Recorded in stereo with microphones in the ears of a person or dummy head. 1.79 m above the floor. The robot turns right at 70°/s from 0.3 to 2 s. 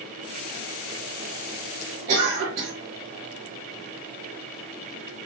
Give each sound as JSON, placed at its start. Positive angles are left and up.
{"t": 2.1, "sound": "a cough", "side_deg": -50, "distance_m": 0.9}